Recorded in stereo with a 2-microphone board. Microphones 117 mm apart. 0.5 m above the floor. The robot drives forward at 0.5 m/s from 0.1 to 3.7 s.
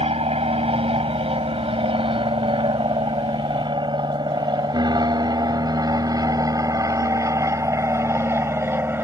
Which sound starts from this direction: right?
An aircraft, at 0.0 s.